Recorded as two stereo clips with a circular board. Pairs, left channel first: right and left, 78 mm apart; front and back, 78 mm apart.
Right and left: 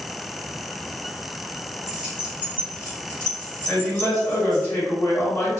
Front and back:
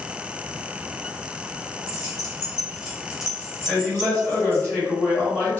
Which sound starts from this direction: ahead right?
A man speaking, at 3.7 s.